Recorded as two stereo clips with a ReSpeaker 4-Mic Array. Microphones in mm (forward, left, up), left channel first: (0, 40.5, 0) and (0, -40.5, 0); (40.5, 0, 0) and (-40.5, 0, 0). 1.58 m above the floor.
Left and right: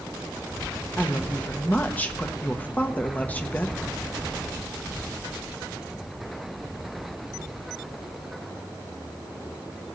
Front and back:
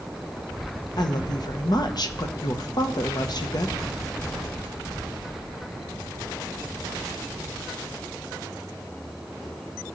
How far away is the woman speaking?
About 1.1 m.